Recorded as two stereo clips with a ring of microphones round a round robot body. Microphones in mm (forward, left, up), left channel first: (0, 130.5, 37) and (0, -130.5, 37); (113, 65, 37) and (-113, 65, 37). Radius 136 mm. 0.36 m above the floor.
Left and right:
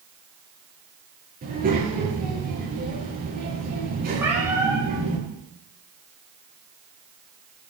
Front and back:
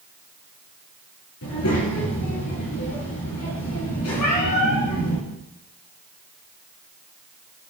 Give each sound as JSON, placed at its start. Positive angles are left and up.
{"t": 1.4, "sound": "a child speaking", "azimuth_deg": -30, "distance_m": 6.5}
{"t": 4.2, "sound": "a cat meowing", "azimuth_deg": -10, "distance_m": 4.0}